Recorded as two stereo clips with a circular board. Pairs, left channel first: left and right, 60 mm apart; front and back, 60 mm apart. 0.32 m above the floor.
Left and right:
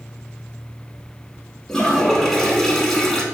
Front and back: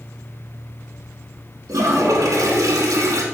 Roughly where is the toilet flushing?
Behind.